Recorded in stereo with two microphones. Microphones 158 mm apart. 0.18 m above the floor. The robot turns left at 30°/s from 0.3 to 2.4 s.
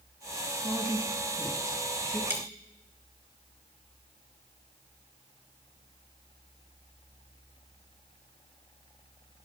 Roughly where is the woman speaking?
Ahead.